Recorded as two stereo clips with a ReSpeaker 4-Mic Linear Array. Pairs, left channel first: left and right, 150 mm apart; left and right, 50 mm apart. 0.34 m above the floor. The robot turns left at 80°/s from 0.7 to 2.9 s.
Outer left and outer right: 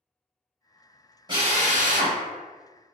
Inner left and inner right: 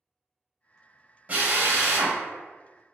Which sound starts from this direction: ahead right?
A drill, at 1.3 s.